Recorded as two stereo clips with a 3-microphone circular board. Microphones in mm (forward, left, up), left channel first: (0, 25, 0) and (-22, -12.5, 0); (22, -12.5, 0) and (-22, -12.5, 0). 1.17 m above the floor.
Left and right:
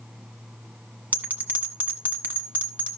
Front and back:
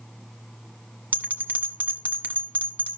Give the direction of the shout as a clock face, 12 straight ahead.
I don't hear a shout.